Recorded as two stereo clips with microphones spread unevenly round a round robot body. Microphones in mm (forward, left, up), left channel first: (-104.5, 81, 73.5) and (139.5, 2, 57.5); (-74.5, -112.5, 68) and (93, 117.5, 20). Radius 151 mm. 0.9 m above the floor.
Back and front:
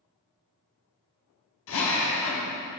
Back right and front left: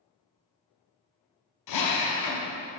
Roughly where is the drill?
Behind right.